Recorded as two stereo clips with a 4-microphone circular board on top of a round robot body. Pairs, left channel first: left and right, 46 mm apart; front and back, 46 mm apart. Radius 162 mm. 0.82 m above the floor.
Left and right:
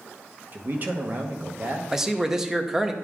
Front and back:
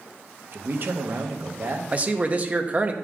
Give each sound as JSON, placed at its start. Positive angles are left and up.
{"t": 0.5, "sound": "a man speaking", "azimuth_deg": -140, "distance_m": 1.0}
{"t": 1.9, "sound": "a man speaking", "azimuth_deg": -160, "distance_m": 1.0}